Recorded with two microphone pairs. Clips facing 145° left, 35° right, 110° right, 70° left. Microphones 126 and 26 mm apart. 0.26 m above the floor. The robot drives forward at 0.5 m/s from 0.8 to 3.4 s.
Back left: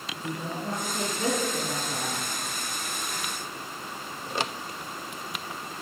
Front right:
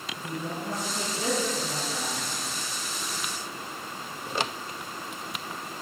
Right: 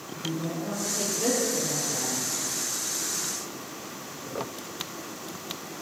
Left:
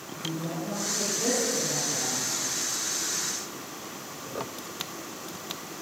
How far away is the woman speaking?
About 3 m.